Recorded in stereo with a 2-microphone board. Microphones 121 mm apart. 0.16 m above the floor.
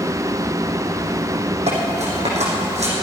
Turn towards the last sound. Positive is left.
turn(degrees=-80)